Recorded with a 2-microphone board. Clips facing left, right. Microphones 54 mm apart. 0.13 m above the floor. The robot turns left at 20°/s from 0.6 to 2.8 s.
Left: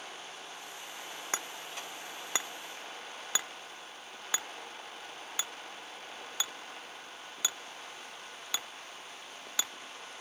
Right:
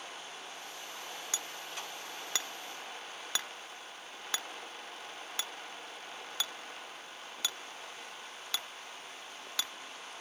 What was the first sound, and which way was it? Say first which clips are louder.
Hammering: left 6 dB; 40° left (ahead or behind).